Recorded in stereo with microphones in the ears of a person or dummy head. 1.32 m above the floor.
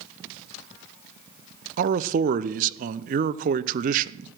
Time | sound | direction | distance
1.8 | a man speaking | 40° right (ahead or behind) | 0.6 m